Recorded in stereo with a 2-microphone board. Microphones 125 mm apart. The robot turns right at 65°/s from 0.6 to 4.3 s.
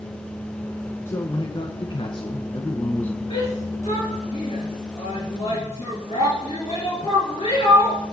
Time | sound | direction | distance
1.1 | a man speaking | 30° left | 1.3 m
3.3 | a shout | 45° left (ahead or behind) | 3.5 m